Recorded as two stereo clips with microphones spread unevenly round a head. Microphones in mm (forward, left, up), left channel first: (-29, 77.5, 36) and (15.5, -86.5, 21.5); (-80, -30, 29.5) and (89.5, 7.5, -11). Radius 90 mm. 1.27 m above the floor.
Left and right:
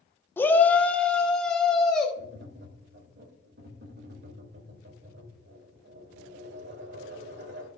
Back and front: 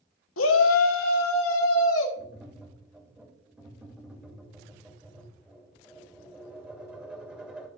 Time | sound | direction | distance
0.4 | a shout | 175° right | 1.0 m
2.2 | tapping | 70° right | 2.5 m